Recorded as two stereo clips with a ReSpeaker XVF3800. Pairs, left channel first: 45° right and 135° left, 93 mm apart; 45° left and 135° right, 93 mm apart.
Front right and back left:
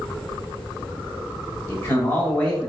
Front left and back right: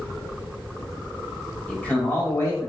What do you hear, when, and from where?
1.7 s a man speaking: 20° right, 1.0 m; by 2.7 s 30° left, 1.2 m